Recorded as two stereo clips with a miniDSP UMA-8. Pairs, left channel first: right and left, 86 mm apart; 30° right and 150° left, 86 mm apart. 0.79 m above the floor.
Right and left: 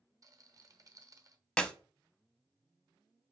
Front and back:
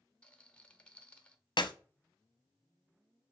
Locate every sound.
0.2 s a rattle: 45° left, 0.7 m
1.6 s a clap: 10° right, 0.6 m